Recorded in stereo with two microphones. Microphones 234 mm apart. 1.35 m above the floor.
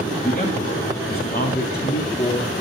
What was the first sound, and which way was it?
A man speaking, 35° left (ahead or behind).